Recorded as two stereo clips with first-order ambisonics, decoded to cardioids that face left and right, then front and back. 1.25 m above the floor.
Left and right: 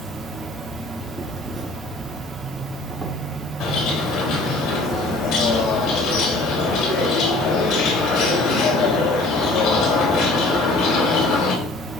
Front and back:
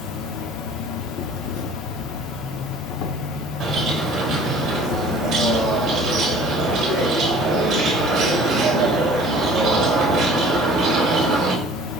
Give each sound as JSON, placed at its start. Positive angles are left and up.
{"t": 0.0, "sound": "an insect", "azimuth_deg": -15, "distance_m": 1.1}
{"t": 3.6, "sound": "a bird", "azimuth_deg": 120, "distance_m": 3.5}